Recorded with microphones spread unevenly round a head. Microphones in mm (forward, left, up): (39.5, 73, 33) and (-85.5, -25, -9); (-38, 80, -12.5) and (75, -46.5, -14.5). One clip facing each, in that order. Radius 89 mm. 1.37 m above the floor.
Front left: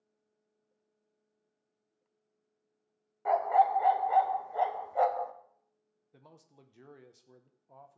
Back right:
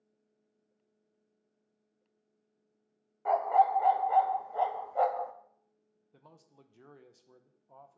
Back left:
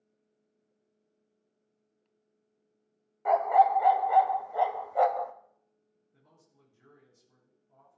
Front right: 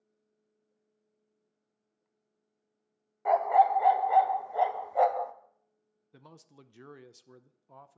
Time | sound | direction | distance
3.2 | a dog barking | 40° left | 0.7 m
6.1 | a man speaking | 45° right | 0.8 m